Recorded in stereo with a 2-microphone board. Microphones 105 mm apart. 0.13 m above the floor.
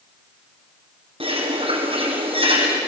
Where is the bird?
65° right (ahead or behind), 5 m.